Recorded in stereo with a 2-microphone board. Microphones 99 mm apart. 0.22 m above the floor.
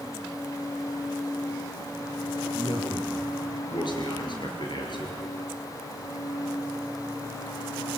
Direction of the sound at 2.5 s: 55° left (ahead or behind).